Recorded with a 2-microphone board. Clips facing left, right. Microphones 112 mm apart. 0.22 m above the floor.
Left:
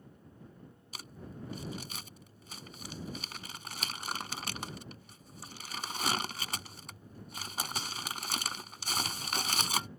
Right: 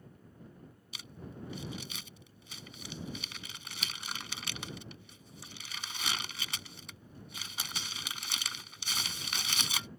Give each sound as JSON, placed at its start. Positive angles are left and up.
{"t": 0.9, "sound": "crumpling", "side_deg": 45}